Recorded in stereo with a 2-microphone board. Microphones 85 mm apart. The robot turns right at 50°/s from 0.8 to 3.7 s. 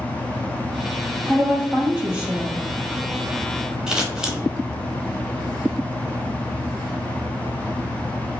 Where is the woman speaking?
20° right (ahead or behind), 1.5 m; by 2.6 s 5° right (ahead or behind), 1.5 m.